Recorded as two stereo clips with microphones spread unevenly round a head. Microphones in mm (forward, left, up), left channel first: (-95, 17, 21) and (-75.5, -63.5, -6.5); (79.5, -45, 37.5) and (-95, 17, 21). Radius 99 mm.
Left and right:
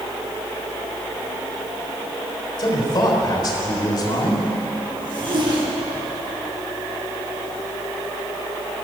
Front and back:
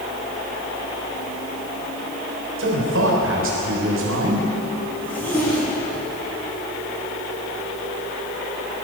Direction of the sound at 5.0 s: 100° right.